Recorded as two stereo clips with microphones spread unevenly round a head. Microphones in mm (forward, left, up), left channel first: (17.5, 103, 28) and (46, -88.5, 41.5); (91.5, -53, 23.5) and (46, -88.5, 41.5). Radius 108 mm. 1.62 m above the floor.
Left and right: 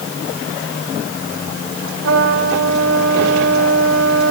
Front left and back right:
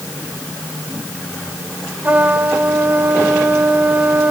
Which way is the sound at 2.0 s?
100° right.